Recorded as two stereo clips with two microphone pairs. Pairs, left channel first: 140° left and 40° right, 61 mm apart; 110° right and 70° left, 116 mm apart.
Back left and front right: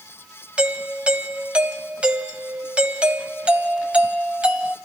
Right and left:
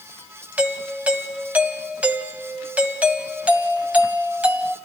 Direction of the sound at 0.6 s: Straight ahead.